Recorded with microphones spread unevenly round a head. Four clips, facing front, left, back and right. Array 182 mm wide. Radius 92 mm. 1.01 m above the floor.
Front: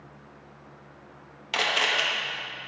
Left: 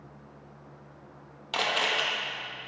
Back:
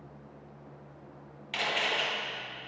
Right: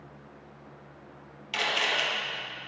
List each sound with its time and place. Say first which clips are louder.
1.5 s a camera shutter: left 1 dB, front 5 dB; 35° left, 1.4 m